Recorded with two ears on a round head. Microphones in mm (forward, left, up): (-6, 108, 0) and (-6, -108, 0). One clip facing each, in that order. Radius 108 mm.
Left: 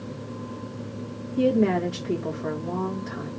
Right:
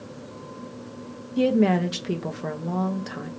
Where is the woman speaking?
55° right (ahead or behind), 1.6 m.